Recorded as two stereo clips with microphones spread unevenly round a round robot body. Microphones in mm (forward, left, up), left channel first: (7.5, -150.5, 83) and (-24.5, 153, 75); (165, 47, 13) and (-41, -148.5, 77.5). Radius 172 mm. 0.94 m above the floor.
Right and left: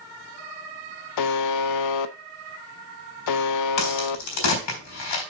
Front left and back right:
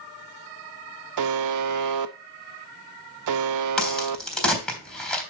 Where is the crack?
45° right, 4 m.